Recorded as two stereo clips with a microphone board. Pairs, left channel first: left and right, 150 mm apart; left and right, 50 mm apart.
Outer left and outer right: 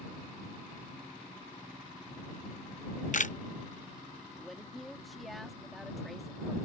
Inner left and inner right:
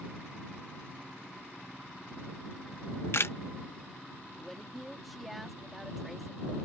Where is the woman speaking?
Centre (ahead or behind).